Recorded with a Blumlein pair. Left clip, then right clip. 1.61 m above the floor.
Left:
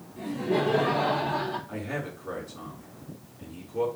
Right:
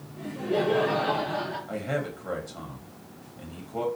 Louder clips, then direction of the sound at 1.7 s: Right 4 dB; 45° right.